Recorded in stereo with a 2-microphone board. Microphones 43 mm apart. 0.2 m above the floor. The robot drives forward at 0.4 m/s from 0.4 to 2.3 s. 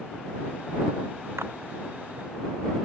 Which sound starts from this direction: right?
A clap, at 1.4 s.